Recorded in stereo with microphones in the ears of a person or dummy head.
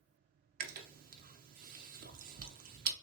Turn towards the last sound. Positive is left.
turn(degrees=-40)  # may be behind; listen again after turning